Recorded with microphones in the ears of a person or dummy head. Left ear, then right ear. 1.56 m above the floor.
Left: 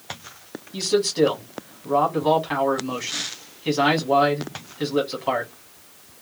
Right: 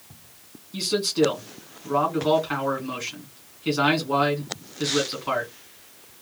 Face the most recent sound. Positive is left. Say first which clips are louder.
# left 3 dB
turn(degrees=10)  # may be behind; listen again after turning